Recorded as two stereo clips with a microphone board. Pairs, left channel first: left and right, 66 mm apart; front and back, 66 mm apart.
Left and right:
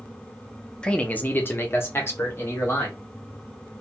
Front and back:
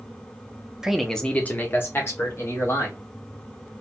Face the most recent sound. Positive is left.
turn(degrees=40)